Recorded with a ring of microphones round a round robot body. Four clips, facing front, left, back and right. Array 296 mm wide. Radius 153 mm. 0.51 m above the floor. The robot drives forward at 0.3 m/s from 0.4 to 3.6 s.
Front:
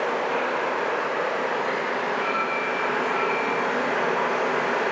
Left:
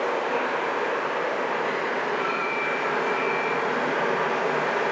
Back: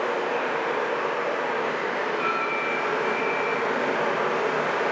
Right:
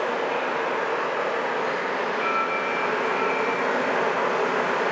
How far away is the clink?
About 1.9 m.